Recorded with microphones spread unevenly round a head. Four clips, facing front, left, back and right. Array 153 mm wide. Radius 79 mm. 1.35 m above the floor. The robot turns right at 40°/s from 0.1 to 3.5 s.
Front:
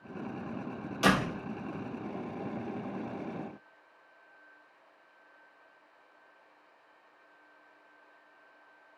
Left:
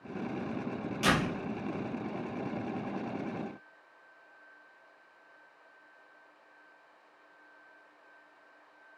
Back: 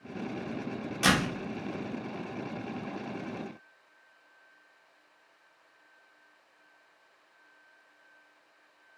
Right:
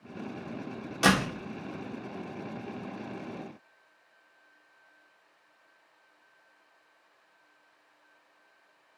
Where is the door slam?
80° right, 3 m; by 1.4 s 70° right, 3 m.